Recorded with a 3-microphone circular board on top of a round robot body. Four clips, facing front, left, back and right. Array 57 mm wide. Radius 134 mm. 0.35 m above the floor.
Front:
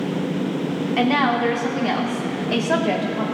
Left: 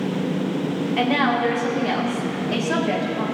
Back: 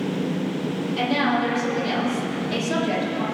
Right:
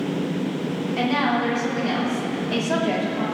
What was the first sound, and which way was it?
A woman speaking, 15° left.